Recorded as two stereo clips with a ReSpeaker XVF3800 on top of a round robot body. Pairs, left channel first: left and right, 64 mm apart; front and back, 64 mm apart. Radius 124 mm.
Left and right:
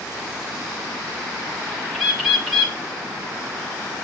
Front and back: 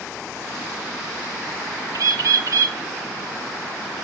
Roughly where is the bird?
Behind.